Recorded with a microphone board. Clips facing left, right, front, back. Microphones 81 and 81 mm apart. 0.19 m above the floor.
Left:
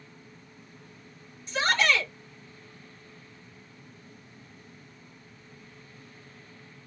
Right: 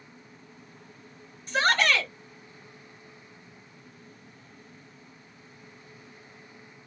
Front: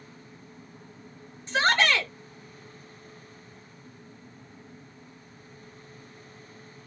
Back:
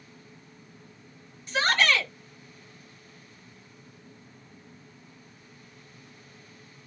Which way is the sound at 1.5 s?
60° right.